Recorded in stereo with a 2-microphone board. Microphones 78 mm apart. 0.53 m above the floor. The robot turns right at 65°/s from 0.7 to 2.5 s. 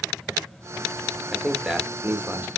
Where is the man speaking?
5° left (ahead or behind), 0.7 m; by 2.5 s 25° right (ahead or behind), 0.7 m.